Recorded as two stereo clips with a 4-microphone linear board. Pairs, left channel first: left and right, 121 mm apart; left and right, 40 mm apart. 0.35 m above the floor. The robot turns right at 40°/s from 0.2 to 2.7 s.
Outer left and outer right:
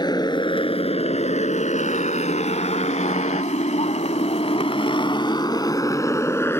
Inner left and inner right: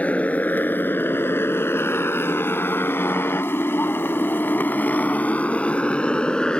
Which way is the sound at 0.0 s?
35° left (ahead or behind).